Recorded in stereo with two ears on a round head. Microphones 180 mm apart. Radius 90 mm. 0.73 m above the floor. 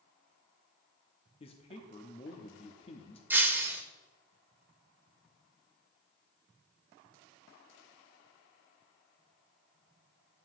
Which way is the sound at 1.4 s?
30° left (ahead or behind).